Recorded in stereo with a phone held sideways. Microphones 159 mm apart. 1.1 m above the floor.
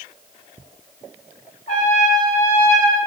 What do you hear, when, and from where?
1.7 s a trumpet: 50° left (ahead or behind), 1.2 m